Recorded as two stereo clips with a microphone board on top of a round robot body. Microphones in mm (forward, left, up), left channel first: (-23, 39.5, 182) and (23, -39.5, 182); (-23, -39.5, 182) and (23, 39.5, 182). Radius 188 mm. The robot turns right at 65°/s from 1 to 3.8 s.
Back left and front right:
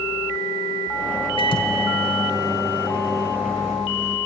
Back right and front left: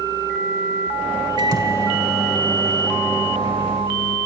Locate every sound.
1.4 s a microwave: 95° left, 1.5 m; by 4.2 s 105° right, 1.5 m